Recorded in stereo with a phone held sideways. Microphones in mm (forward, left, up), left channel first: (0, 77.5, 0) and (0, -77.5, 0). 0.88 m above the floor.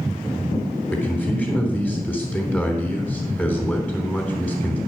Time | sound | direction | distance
0.9 | a man speaking | 10° left (ahead or behind) | 3.5 m